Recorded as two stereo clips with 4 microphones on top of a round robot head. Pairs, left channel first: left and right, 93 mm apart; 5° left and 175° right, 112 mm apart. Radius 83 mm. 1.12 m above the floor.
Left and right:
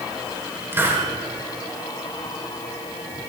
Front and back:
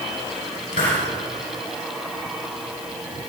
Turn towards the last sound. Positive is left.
turn(degrees=-25)